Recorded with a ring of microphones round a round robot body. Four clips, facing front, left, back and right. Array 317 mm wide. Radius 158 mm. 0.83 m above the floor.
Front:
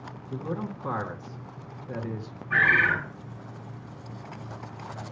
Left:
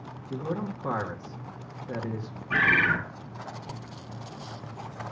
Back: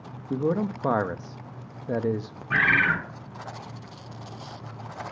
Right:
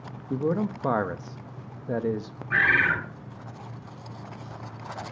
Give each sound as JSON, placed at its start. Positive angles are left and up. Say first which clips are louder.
{"t": 0.3, "sound": "a man speaking", "louder": "right 6 dB, back 8 dB", "azimuth_deg": -150, "distance_m": 1.3}
{"t": 2.5, "sound": "a bird", "louder": "right 1 dB, even", "azimuth_deg": 170, "distance_m": 7.0}